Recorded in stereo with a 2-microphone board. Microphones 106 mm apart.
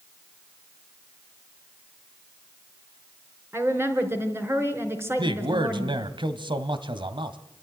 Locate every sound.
3.5 s a woman speaking: 20° right (ahead or behind), 4 m
5.2 s a man speaking: 50° right (ahead or behind), 1.5 m